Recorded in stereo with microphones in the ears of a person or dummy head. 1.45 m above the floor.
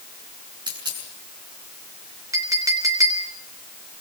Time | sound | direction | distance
0.7 | a dropped coin | 25° right (ahead or behind) | 6.5 m
2.3 | a clink | 20° right (ahead or behind) | 3.5 m